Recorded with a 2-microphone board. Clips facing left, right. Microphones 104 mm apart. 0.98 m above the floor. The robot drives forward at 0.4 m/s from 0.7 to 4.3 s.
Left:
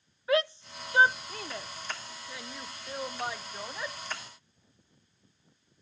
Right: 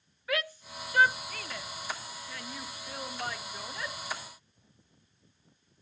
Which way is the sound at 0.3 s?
30° left (ahead or behind).